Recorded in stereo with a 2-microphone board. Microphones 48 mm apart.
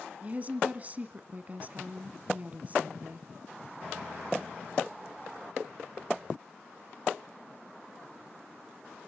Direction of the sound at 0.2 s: 30° right (ahead or behind).